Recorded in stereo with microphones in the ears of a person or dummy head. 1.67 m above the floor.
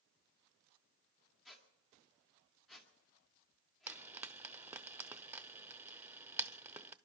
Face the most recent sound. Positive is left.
turn(degrees=-5)  # may be behind; listen again after turning